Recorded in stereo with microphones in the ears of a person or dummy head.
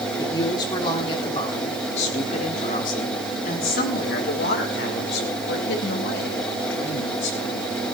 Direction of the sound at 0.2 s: 15° left (ahead or behind).